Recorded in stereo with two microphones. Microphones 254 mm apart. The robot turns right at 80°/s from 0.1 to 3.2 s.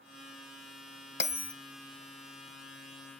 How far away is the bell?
About 0.6 m.